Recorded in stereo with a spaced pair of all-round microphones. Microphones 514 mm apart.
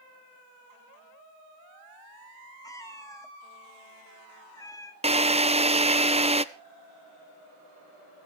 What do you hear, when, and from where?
2.6 s a cat meowing: 5° left (ahead or behind), 1.4 m
5.0 s a drill: 15° right (ahead or behind), 0.6 m